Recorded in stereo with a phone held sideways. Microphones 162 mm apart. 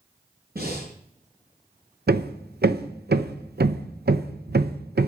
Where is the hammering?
80° right, 0.7 m.